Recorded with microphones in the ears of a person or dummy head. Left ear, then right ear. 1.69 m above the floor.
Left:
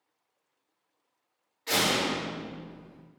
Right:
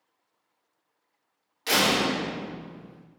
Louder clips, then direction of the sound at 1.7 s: Right 3 dB; 65° right (ahead or behind).